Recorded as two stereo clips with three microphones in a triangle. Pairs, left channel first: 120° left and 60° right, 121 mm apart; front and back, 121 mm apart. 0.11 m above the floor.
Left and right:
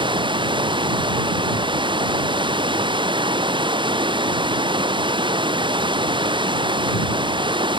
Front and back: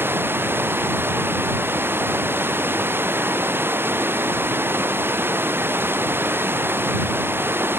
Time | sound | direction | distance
0.0 | running water | 105° right | ?